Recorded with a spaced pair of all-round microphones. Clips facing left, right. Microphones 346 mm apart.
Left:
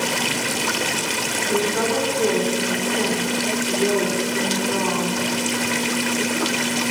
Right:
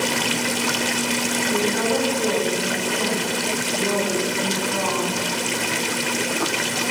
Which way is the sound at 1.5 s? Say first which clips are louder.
Left 1 dB; 65° left (ahead or behind).